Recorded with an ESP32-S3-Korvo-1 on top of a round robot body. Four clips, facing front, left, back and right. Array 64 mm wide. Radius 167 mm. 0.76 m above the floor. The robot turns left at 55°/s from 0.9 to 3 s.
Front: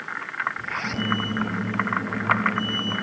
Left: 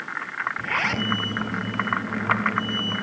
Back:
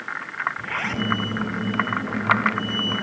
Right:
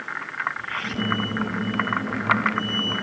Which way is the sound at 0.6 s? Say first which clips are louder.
Left 3 dB, back 2 dB; 110° left.